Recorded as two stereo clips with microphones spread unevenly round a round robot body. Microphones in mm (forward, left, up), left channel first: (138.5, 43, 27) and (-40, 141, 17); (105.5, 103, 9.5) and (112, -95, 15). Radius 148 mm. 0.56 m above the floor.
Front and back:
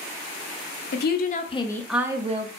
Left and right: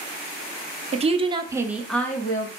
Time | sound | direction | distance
0.9 | a woman speaking | 40° right | 0.8 m